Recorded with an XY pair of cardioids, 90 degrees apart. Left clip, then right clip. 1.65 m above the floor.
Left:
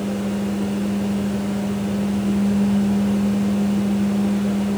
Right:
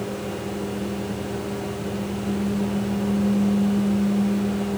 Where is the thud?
I don't hear a thud.